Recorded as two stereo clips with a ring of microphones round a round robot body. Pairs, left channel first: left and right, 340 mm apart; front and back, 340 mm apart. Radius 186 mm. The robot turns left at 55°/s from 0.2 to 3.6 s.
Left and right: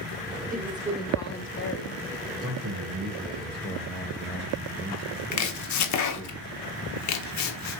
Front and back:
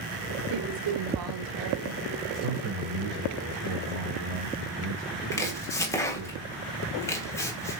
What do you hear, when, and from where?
0.5 s a woman speaking: 155° right, 1.7 m; by 2.0 s 125° left, 1.7 m
2.4 s a man speaking: 135° right, 1.9 m; by 6.3 s 160° left, 1.9 m
5.3 s chopping: 80° left, 1.1 m